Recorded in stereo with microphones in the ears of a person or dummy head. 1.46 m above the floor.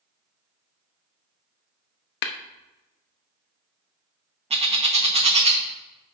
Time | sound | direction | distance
2.2 | tapping | 55° left (ahead or behind) | 0.7 m
4.5 | a bird | 40° right (ahead or behind) | 1.0 m